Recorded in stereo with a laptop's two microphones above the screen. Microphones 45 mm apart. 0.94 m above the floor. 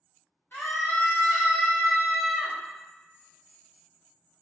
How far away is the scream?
About 1.0 m.